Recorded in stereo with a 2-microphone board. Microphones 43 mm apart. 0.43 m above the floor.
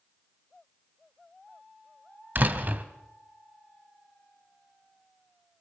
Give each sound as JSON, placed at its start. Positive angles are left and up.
{"t": 2.4, "sound": "a door slam", "side_deg": -45, "distance_m": 1.6}